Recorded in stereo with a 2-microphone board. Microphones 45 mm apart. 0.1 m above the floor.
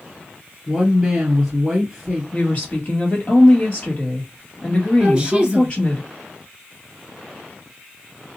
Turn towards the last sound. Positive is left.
turn(degrees=-20)  # may be behind; listen again after turning